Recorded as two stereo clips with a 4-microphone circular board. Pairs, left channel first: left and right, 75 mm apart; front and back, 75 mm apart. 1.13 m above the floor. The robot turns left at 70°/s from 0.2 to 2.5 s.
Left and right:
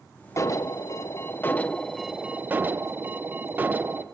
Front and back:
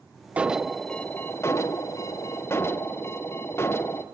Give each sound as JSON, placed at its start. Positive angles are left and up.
{"t": 0.4, "sound": "an alarm", "azimuth_deg": 115, "distance_m": 0.6}